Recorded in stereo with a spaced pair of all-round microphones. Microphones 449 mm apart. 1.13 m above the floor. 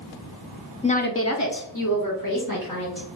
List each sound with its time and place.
0.8 s a woman speaking: 10° left (ahead or behind), 0.6 m; by 3.1 s 40° left (ahead or behind), 2 m